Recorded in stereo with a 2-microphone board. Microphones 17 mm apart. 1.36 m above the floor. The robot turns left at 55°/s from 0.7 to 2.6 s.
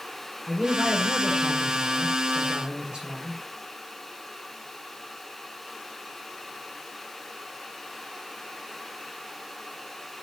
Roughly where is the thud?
No thud in this recording.